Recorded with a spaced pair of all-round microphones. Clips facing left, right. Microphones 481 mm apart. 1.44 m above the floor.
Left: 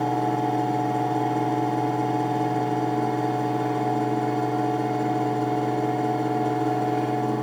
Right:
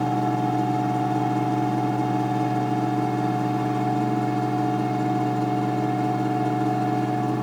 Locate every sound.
0.0 s a fan: 30° right (ahead or behind), 0.9 m